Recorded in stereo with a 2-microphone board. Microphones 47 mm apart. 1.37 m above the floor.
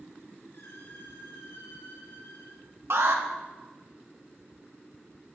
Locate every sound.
0.5 s a squeak: 80° left, 7.5 m
2.9 s an alarm: 70° right (ahead or behind), 1.8 m